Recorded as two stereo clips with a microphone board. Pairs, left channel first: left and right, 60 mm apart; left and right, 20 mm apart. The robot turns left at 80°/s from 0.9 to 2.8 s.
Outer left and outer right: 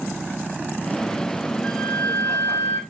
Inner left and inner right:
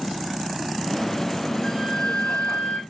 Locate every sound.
1.6 s a flute: 175° left, 1.8 m; by 2.8 s 80° left, 1.8 m